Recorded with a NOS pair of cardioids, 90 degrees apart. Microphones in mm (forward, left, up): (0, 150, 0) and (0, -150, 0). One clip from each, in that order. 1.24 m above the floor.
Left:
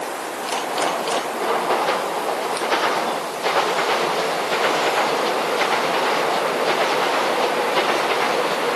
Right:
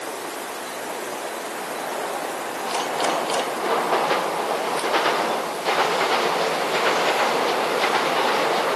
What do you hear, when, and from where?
Only background noise.